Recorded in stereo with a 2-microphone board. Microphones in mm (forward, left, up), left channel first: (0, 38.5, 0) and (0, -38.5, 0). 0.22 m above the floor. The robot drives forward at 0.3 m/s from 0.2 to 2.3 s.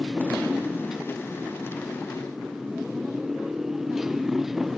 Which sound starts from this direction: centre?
A motorcycle, at 0.0 s.